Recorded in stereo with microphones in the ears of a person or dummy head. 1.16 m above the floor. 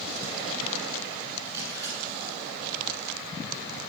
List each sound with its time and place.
1.4 s a camera shutter: 20° right (ahead or behind), 5.5 m